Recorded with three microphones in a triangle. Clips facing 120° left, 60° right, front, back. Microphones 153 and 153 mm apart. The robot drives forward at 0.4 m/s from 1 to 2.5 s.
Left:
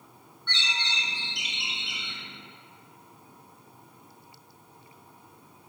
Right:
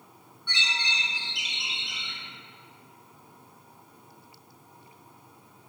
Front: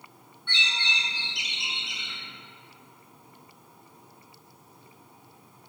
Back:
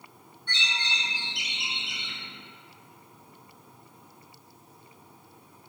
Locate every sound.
0.5 s a bird: 140° right, 0.6 m; by 2.2 s 160° right, 0.9 m